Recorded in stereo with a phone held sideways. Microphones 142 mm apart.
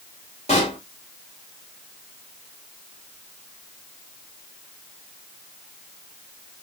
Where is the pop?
50° left (ahead or behind), 1.6 m.